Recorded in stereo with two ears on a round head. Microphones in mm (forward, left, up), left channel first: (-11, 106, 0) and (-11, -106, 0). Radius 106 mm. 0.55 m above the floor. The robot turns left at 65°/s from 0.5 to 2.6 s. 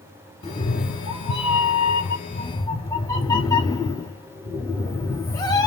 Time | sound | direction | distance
0.4 | a cat meowing | 150° left | 0.9 m